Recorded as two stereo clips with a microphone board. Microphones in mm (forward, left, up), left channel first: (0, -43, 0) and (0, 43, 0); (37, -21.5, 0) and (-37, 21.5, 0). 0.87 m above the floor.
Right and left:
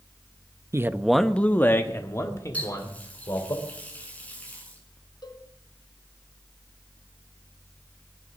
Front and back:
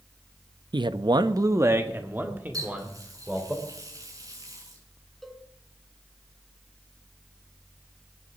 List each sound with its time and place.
0.7 s a man speaking: 140° left, 0.6 m; by 3.5 s 135° right, 3 m
2.5 s a running tap: 165° right, 6.5 m
5.2 s a cowbell: 120° right, 2 m